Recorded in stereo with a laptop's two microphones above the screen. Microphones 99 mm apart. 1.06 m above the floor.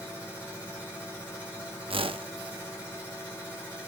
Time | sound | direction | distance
0.0 | a machine running | 20° left (ahead or behind) | 3.5 m
1.9 | a whoosh | 70° right (ahead or behind) | 0.6 m